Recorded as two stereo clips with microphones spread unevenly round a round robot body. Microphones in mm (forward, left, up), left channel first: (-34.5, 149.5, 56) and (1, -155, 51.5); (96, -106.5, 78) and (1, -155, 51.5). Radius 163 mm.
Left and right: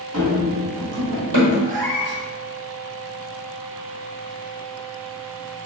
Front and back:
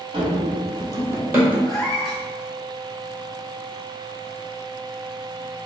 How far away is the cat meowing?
About 1.2 m.